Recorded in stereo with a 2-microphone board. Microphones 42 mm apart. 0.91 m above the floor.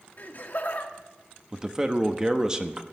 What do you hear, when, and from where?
0.2 s laughter: 50° left (ahead or behind), 1.8 m
1.5 s a man speaking: 20° right (ahead or behind), 1.1 m